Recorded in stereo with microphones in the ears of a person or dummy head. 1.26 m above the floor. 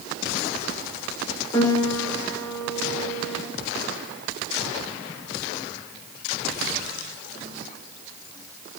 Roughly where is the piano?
Left.